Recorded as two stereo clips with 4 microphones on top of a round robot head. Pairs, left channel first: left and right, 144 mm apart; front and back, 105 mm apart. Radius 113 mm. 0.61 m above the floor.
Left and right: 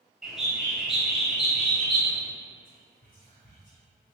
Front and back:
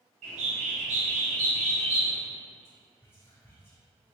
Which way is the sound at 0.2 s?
175° right.